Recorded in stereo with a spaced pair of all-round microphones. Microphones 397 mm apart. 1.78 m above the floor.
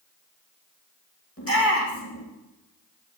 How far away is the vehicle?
No vehicle in this recording.